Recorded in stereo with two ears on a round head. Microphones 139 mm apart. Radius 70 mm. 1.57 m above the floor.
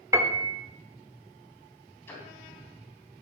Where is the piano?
15° right (ahead or behind), 1.5 m.